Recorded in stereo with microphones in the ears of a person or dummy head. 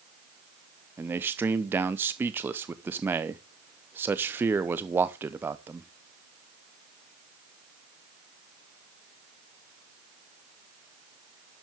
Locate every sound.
1.0 s a man speaking: 10° right (ahead or behind), 0.6 m